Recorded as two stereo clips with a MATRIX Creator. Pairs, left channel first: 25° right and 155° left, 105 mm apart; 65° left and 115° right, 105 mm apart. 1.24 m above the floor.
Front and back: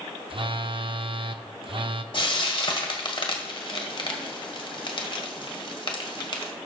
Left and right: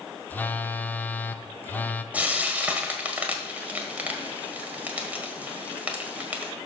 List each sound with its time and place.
0.3 s a phone buzzing: 140° left, 0.6 m
2.1 s frying: 40° right, 1.6 m